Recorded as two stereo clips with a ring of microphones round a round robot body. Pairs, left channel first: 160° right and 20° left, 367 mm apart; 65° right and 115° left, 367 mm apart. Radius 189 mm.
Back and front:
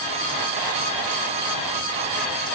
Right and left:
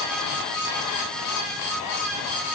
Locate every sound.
Only background noise.